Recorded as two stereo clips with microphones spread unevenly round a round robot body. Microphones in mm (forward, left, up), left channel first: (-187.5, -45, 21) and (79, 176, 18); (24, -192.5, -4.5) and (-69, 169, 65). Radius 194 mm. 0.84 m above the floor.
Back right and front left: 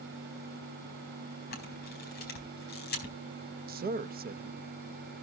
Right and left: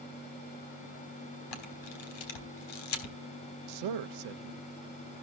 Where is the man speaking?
95° left, 0.7 m.